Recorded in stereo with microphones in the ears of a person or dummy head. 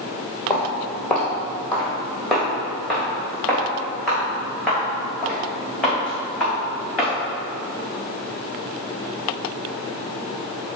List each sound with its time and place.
0.5 s footsteps: 5° left (ahead or behind), 1.8 m; by 7.1 s centre (ahead or behind), 6 m